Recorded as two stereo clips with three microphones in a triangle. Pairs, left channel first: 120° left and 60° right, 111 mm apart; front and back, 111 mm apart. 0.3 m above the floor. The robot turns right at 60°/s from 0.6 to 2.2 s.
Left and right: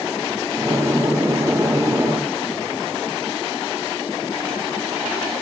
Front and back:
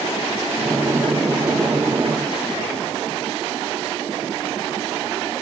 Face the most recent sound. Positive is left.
No sound to turn to.